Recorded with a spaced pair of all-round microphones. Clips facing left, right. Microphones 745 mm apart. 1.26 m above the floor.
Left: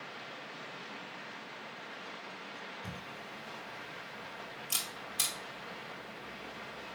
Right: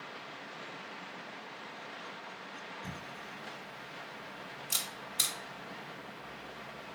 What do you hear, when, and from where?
2.8 s a camera shutter: centre (ahead or behind), 1.9 m